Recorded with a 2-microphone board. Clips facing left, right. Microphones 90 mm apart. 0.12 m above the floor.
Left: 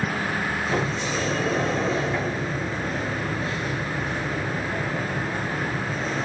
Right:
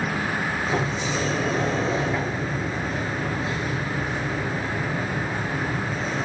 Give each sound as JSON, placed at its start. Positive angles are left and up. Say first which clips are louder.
{"t": 0.7, "sound": "a sliding door", "louder": "even", "side_deg": -5, "distance_m": 0.8}